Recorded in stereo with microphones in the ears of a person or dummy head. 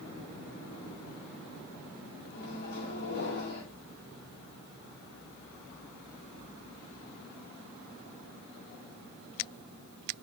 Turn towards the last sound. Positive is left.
turn(degrees=60)  # may be behind; listen again after turning